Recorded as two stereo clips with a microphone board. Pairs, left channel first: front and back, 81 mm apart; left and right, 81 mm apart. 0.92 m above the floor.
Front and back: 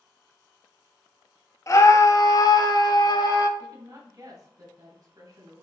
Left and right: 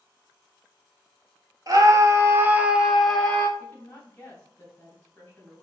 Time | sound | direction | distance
1.7 | a scream | 50° right | 1.0 m
3.6 | a woman speaking | 160° left | 2.5 m